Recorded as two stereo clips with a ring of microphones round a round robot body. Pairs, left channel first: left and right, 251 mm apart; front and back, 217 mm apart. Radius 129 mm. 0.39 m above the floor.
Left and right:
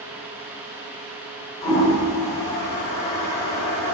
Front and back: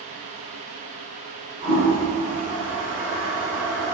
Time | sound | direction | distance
1.6 | a toilet flushing | 140° left | 1.5 m